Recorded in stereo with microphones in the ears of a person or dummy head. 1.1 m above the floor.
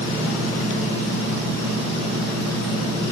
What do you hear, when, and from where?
Only background noise.